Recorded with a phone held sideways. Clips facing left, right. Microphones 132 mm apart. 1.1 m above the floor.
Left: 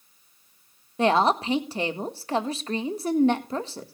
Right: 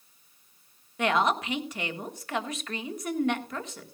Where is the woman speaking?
30° left (ahead or behind), 1.5 m.